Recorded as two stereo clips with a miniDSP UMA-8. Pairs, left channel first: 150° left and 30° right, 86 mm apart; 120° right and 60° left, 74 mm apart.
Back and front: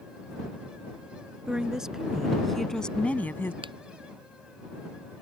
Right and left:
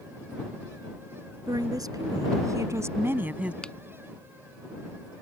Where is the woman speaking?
50° left; by 3.5 s 120° left.